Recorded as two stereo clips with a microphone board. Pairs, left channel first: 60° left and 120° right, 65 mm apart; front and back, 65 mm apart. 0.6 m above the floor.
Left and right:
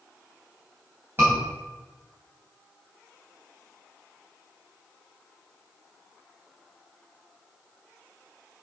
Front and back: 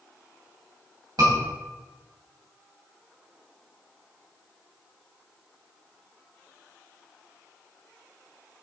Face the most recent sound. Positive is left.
turn(degrees=-175)